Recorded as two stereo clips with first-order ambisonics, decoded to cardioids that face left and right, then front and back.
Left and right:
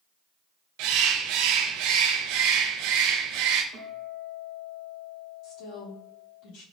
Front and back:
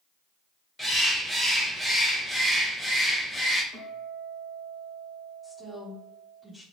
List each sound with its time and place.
0.8 s a bird: 90° right, 0.5 m
3.7 s a guitar: 110° right, 1.2 m
5.4 s a woman speaking: 85° left, 1.6 m